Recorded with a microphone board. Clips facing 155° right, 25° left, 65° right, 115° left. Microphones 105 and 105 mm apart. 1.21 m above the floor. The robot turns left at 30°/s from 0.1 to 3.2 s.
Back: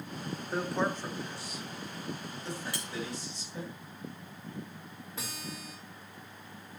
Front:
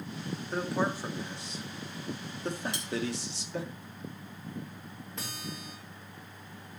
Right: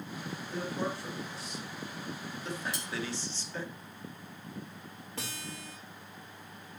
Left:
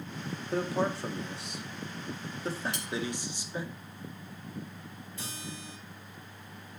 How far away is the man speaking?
About 1.9 m.